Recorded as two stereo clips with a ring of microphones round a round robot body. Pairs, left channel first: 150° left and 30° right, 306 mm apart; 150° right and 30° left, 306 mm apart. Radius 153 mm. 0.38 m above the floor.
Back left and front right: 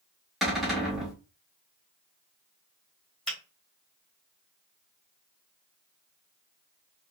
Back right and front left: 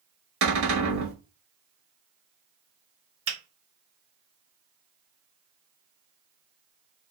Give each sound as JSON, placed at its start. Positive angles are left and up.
{"t": 0.4, "sound": "a cupboard door", "azimuth_deg": 60, "distance_m": 1.1}
{"t": 3.3, "sound": "a finger snap", "azimuth_deg": 65, "distance_m": 1.4}